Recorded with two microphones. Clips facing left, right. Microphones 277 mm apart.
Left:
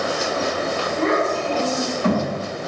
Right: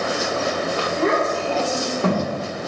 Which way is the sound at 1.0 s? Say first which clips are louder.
Left 1 dB; 40° right (ahead or behind).